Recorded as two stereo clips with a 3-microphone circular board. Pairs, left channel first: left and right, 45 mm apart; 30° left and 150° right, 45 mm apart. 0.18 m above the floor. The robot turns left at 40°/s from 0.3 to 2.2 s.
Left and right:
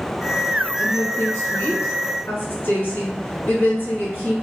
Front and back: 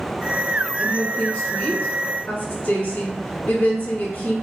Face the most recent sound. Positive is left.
turn(degrees=70)